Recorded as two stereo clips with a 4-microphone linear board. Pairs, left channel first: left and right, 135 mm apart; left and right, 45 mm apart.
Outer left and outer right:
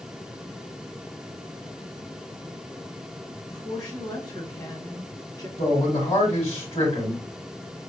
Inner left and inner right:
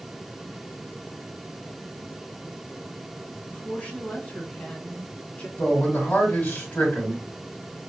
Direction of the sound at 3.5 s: 30° left (ahead or behind).